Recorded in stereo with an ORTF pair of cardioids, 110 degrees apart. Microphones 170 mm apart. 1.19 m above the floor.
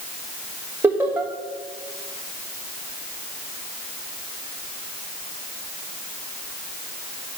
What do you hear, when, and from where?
0.8 s laughter: 15° right, 1.4 m